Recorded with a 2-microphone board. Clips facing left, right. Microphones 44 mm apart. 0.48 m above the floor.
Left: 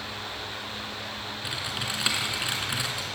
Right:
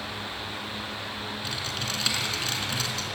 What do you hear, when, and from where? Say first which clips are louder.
1.4 s typing on a keyboard: left 2 dB; 15° left (ahead or behind), 3.5 m